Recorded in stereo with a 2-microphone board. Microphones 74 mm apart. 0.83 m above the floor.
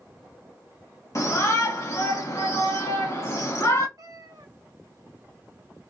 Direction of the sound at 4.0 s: 55° right (ahead or behind).